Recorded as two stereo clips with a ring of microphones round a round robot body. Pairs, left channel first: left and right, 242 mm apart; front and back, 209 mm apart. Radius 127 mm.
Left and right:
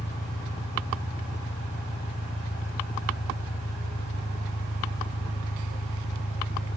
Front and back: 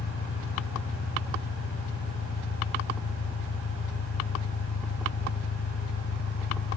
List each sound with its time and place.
0.0 s an engine running: 25° left, 0.8 m